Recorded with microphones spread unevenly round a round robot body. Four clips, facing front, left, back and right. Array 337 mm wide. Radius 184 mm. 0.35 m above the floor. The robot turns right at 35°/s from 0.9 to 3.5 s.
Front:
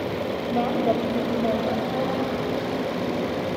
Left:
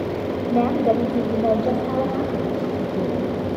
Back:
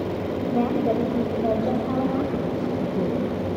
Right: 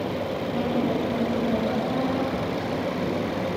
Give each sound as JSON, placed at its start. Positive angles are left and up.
{"t": 0.5, "sound": "a woman speaking", "azimuth_deg": 70, "distance_m": 2.5}